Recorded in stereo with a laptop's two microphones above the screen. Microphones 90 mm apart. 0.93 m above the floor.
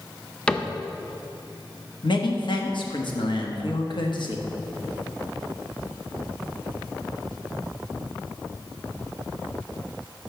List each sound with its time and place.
0.5 s a cupboard door: 15° left (ahead or behind), 0.5 m
2.0 s a man speaking: 65° left (ahead or behind), 1.1 m